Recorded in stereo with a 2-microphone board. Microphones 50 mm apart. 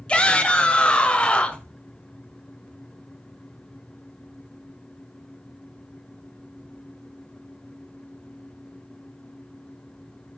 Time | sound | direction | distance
0.1 | a shout | 25° left (ahead or behind) | 1.2 m